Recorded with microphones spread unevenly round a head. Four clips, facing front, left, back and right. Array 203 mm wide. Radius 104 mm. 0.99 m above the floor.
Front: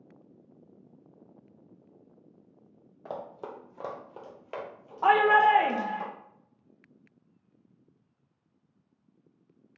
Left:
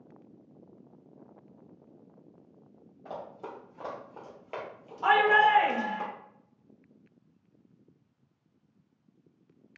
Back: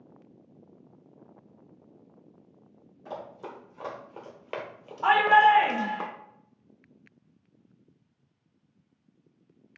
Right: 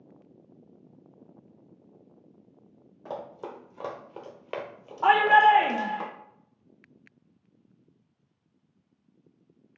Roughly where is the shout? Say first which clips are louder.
Right 4 dB, back 1 dB; ahead right.